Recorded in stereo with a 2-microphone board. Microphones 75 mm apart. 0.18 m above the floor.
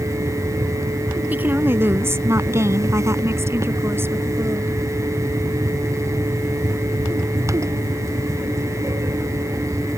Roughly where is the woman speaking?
Right.